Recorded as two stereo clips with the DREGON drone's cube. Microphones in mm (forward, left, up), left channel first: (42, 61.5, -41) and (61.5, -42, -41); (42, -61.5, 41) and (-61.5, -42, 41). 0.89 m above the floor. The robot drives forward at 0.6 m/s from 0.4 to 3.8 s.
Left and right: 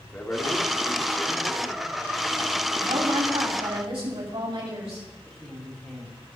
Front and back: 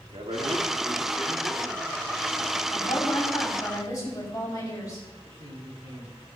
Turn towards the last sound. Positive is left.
turn(degrees=-170)